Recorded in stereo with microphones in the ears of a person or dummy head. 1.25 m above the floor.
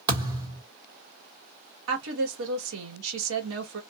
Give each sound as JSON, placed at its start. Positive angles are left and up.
{"t": 0.1, "sound": "a thud", "side_deg": -15, "distance_m": 1.4}
{"t": 1.9, "sound": "a woman speaking", "side_deg": -70, "distance_m": 1.6}